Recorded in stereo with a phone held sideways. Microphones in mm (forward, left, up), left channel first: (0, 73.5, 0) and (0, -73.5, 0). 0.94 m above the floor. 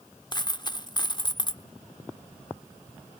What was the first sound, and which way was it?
A dropped coin, 30° left (ahead or behind).